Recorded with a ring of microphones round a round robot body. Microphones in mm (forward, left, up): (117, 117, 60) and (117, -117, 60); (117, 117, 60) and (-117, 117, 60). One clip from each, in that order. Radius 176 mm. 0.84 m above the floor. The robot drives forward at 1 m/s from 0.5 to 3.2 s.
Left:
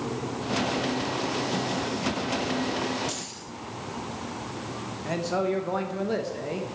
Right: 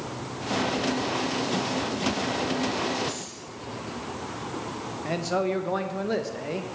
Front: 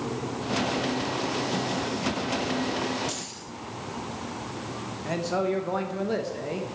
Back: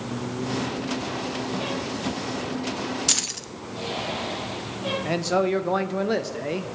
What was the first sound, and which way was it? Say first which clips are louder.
Keys jangling: even, back 10 dB; 170° left.